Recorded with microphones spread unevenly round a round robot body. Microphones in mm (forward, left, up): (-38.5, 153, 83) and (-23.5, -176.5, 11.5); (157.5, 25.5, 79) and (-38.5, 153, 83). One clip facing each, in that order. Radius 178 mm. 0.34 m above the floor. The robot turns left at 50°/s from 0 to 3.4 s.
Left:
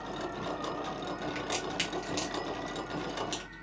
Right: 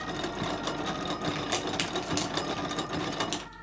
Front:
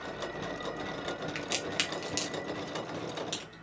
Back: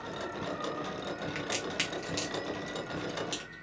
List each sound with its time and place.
1.4 s a crack: 25° right, 1.2 m; by 3.6 s 125° right, 1.2 m